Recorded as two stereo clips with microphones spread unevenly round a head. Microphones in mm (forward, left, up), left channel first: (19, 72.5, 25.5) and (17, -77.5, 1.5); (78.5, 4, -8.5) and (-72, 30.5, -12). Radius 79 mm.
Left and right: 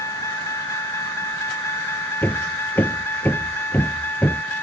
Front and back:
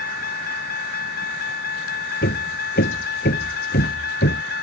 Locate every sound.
0.0 s a vehicle: 20° left; by 4.6 s 10° left
2.2 s hammering: 15° left